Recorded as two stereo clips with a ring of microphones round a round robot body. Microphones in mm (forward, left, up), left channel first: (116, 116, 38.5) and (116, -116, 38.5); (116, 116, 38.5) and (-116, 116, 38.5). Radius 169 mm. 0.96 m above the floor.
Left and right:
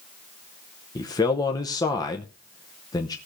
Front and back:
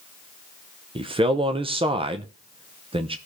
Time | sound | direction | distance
0.9 | a man speaking | 145° left | 0.9 m